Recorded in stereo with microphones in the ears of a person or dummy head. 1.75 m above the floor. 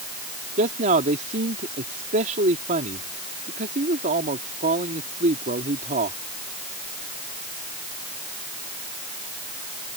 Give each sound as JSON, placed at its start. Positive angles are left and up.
{"t": 0.6, "sound": "a man speaking", "side_deg": -45}